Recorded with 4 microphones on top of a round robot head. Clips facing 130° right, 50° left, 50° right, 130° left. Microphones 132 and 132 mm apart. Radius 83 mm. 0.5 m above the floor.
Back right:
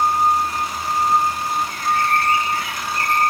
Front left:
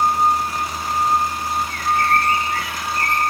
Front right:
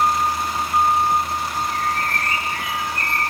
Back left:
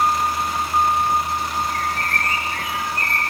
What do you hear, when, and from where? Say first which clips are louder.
1.7 s a bird: front left 3 dB, front right 1 dB; 80° right, 6.5 m